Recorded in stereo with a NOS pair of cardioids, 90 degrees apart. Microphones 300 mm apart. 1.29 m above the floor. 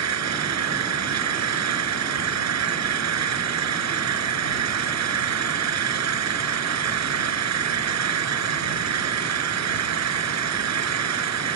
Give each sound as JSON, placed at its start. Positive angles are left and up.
{"t": 0.0, "sound": "an engine running", "azimuth_deg": -60}